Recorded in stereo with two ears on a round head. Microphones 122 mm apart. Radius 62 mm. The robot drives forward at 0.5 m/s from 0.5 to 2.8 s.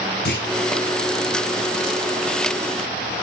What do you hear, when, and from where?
0.2 s a clunk: 90° left, 3 m